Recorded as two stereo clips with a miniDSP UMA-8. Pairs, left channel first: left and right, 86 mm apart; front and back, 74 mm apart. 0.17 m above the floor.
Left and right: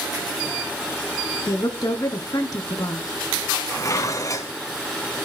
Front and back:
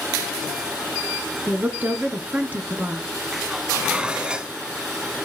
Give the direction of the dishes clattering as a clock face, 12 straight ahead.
8 o'clock.